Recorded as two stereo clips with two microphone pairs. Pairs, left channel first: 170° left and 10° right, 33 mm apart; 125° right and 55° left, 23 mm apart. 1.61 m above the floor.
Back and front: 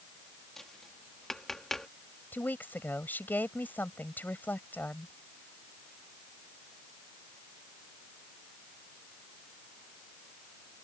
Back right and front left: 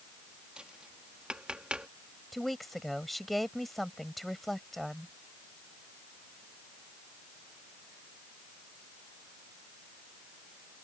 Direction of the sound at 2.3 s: 145° left.